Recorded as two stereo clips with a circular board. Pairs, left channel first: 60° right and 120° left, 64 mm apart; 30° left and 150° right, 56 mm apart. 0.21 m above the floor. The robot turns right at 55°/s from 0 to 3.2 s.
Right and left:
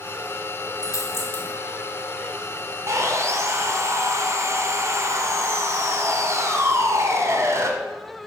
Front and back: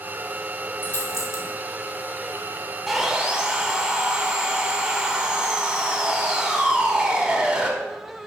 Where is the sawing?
115° left, 1.0 m; by 7.7 s 135° left, 1.0 m.